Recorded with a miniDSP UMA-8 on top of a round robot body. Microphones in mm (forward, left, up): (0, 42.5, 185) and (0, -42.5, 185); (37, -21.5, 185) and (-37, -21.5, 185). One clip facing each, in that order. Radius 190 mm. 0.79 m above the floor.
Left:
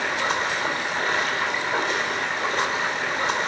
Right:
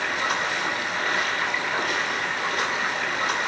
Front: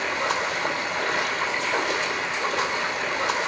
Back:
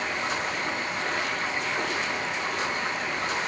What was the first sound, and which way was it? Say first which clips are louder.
Running water: left 1 dB, front 4 dB; 30° left.